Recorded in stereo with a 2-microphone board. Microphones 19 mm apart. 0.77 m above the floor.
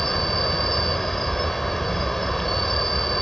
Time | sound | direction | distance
0.0 | an insect | 10° left (ahead or behind) | ?